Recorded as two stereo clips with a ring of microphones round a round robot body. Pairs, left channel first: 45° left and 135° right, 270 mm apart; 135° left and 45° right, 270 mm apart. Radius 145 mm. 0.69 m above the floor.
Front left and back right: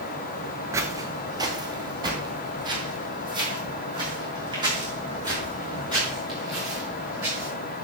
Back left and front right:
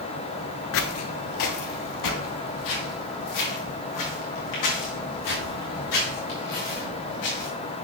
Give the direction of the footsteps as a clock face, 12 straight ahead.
7 o'clock.